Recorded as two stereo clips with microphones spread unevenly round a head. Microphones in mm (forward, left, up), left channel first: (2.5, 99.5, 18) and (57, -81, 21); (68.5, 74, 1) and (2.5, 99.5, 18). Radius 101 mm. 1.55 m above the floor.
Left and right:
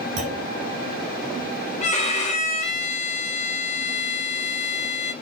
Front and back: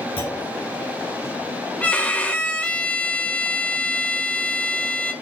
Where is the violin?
55° left, 2 m.